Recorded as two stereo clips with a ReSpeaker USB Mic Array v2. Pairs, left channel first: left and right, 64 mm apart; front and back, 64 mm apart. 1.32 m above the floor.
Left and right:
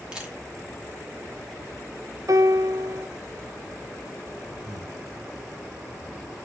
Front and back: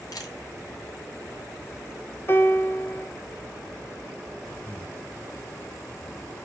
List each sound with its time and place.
0.1 s a camera shutter: 15° right, 2.5 m
2.3 s a piano: 55° right, 0.8 m
4.6 s breathing: 65° right, 1.2 m